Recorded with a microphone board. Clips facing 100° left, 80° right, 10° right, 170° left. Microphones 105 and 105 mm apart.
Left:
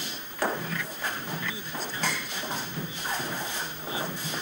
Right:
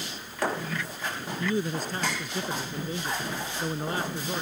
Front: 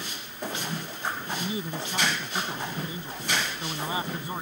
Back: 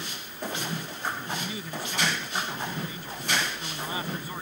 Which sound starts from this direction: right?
A man speaking, at 1.4 s.